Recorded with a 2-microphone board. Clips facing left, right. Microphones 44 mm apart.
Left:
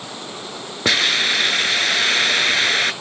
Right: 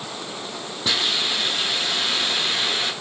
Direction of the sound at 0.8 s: 80° left.